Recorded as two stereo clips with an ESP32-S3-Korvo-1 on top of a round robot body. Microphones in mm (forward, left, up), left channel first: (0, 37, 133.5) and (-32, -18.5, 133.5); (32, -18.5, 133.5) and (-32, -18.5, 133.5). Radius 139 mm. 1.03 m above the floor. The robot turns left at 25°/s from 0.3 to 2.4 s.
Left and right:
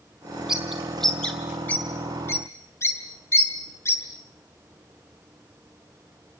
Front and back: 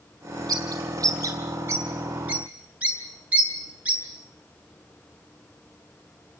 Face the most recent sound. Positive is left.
turn(degrees=110)